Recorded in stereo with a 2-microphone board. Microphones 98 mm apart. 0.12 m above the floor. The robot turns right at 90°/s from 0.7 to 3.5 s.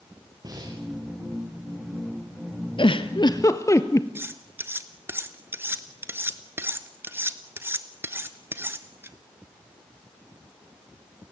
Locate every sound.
0.4 s breathing: 40° right (ahead or behind), 5.5 m; by 0.8 s 50° right (ahead or behind), 5.5 m
2.8 s a giggle: 60° left (ahead or behind), 1.1 m; by 4.0 s 35° left (ahead or behind), 1.1 m
4.2 s cutlery clinking: 20° right (ahead or behind), 1.1 m